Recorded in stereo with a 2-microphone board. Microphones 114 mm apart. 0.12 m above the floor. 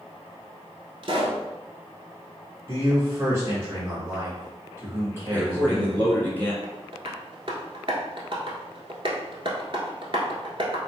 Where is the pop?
45° right (ahead or behind), 1.0 m.